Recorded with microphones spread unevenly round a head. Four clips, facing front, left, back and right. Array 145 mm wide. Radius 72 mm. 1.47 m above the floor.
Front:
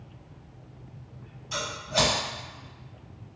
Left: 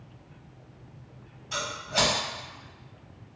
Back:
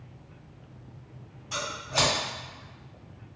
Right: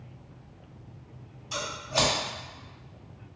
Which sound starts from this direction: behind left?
Scissors, at 1.5 s.